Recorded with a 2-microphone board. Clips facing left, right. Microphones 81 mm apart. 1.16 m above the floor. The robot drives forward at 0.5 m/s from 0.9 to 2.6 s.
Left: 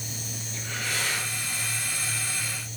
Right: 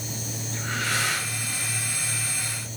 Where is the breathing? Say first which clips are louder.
Right 5 dB; 80° right, 5.5 m.